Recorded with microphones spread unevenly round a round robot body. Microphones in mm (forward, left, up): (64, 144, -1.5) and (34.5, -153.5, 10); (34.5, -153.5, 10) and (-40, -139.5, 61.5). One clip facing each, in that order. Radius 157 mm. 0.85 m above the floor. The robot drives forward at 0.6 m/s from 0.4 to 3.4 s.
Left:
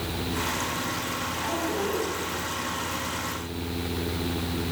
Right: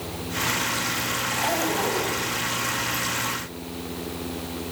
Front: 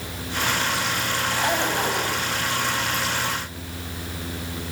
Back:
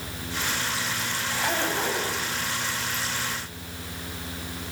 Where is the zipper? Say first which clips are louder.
Right 3 dB, front 2 dB; 75° right, 4 m; by 2.2 s 85° right, 4 m.